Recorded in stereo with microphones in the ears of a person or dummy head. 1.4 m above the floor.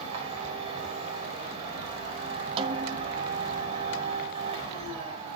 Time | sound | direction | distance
0.0 | a machine running | 30° right (ahead or behind) | 4 m
2.6 | a snare drum | 30° right (ahead or behind) | 0.9 m